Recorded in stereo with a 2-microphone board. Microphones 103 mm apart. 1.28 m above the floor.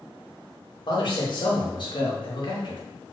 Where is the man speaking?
50° left (ahead or behind), 0.9 m.